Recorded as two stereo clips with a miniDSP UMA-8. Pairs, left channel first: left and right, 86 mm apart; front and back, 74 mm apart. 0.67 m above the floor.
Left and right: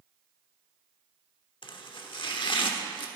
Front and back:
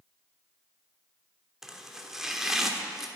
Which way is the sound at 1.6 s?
95° left.